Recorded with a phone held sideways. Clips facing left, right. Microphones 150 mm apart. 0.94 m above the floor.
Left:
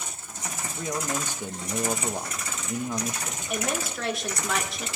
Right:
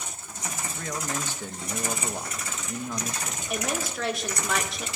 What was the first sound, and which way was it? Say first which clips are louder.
A man speaking: left 4 dB; 15° left (ahead or behind).